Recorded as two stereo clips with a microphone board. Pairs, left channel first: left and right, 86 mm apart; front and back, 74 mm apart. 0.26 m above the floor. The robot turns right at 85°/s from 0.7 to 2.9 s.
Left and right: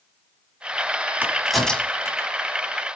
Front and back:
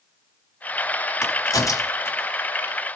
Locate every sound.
1.2 s a crack: 30° right, 1.4 m; by 2.3 s 65° left, 1.4 m